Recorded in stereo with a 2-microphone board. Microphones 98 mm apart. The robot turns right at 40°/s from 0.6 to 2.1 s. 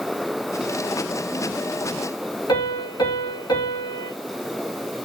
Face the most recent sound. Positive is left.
turn(degrees=45)  # may be behind; listen again after turning